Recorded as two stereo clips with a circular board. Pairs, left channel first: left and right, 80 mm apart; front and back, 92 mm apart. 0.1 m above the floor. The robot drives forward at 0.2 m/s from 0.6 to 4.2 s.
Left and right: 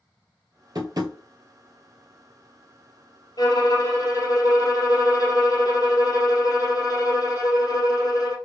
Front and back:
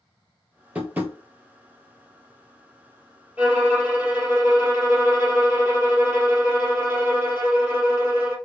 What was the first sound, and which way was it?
Tapping, 115° right.